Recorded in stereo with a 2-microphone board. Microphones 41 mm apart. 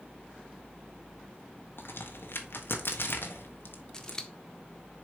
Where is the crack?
65° left (ahead or behind), 1.3 m.